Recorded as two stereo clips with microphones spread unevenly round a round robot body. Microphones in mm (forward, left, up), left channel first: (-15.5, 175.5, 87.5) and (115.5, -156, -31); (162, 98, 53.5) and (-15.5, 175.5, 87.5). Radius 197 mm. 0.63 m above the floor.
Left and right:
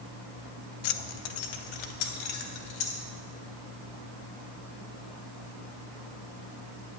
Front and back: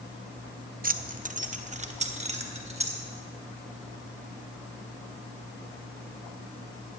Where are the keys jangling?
105° left, 0.8 m; by 3.0 s 95° left, 2 m.